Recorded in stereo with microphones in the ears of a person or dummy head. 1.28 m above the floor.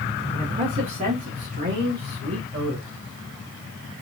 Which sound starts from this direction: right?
A man speaking, at 0.3 s.